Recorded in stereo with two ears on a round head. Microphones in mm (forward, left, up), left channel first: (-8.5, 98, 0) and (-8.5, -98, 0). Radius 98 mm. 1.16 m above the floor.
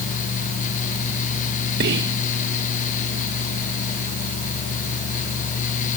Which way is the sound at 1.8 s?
50° right (ahead or behind).